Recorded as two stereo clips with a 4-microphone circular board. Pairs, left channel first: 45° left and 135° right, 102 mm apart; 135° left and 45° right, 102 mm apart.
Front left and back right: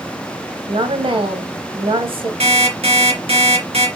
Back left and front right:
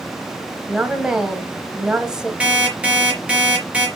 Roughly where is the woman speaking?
Behind right.